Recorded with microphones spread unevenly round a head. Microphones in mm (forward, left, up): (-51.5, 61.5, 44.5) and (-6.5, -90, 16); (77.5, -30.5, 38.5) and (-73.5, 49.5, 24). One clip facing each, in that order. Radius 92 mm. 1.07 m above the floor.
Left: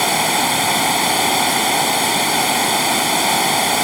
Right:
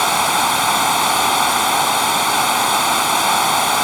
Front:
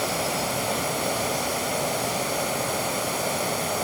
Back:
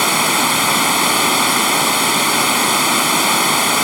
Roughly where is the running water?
Behind.